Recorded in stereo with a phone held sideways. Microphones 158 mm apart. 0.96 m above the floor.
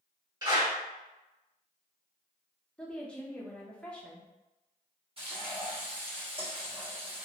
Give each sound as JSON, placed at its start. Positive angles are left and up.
{"t": 0.4, "sound": "a clap", "side_deg": -25, "distance_m": 1.4}
{"t": 2.8, "sound": "a woman speaking", "side_deg": 5, "distance_m": 0.6}
{"t": 5.2, "sound": "frying", "side_deg": -40, "distance_m": 1.1}